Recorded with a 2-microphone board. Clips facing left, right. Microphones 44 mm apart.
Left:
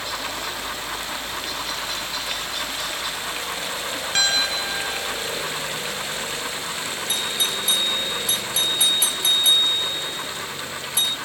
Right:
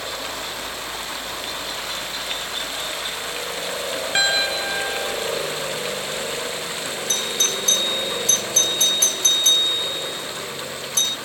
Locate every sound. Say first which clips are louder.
0.0 s a helicopter: left 1 dB; 30° right (ahead or behind)
4.2 s a piano: right 2 dB; 15° right (ahead or behind)
7.1 s a doorbell: right 1 dB; 10° left (ahead or behind)